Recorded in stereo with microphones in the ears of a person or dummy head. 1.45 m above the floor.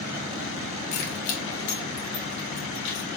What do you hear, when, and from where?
0.9 s keys jangling: 65° left (ahead or behind), 0.7 m; by 3.1 s 60° left (ahead or behind), 1.7 m